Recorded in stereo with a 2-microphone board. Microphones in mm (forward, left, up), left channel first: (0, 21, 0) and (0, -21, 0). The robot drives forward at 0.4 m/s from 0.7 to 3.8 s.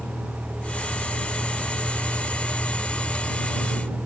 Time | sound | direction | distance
0.0 | a vehicle | 35° left (ahead or behind) | ?